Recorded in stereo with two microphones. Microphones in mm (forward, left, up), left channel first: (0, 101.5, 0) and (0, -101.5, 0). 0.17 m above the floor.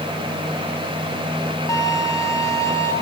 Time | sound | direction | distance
1.7 | a violin | 15° left (ahead or behind) | 2.0 m